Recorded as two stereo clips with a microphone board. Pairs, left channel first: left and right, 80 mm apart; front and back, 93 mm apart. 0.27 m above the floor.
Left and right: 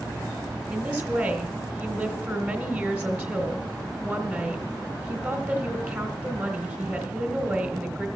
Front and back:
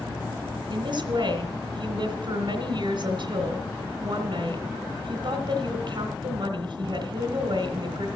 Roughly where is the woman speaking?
Behind right.